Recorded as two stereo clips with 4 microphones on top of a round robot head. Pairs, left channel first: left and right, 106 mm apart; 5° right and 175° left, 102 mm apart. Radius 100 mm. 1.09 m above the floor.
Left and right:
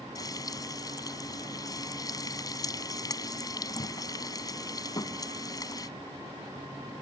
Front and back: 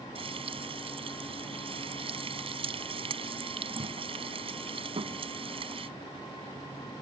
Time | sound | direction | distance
0.1 | frying | 145° left | ?